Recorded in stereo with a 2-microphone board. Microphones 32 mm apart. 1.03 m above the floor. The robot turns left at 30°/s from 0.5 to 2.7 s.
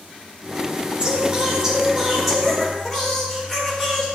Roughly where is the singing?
Behind right.